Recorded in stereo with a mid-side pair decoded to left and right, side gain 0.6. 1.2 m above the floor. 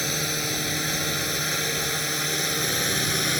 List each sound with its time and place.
0.0 s a drone: straight ahead